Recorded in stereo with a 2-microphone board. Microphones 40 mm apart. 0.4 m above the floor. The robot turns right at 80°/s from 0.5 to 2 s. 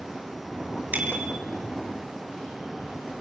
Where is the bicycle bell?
40° right, 4 m; by 1.4 s 5° right, 4 m.